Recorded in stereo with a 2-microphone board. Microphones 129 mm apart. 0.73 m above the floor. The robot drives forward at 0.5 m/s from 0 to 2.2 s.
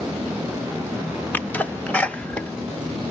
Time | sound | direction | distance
1.3 | a sneeze | 15° left (ahead or behind) | 0.6 m